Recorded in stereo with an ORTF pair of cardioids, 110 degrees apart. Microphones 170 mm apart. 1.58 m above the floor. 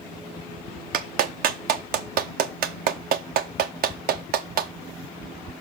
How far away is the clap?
About 0.7 m.